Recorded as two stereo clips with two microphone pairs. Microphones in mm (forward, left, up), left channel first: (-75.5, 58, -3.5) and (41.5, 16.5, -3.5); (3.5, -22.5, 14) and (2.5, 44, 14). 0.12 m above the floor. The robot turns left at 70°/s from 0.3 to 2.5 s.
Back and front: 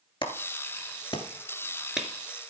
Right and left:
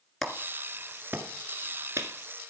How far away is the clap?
About 1.9 m.